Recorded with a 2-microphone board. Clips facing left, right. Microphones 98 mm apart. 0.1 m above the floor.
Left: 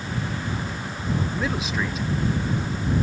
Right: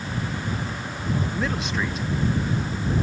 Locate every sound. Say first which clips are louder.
1.3 s a man speaking: even; 5° left (ahead or behind); by 3.0 s 5° right (ahead or behind)